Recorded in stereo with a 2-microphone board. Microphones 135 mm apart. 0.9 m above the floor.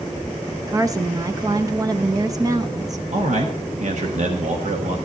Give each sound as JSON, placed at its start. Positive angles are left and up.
{"t": 0.7, "sound": "a woman speaking", "side_deg": -25, "distance_m": 0.8}
{"t": 3.1, "sound": "a man speaking", "side_deg": -60, "distance_m": 1.2}